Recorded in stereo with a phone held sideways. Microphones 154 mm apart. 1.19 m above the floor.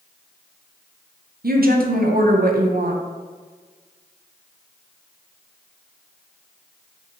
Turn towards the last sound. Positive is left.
turn(degrees=-75)  # may be behind; listen again after turning